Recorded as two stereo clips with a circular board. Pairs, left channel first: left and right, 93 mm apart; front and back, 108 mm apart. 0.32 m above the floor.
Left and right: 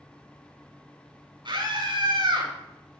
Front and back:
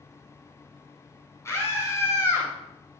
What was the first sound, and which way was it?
A scream, 60° right.